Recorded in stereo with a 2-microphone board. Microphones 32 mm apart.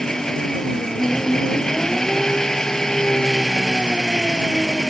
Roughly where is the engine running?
Centre.